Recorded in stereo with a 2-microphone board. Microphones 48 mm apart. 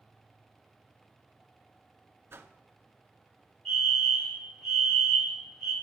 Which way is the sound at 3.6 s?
5° left (ahead or behind).